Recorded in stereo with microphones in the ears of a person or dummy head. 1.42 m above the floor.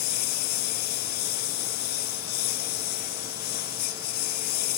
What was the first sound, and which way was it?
A lawn mower, 55° left (ahead or behind).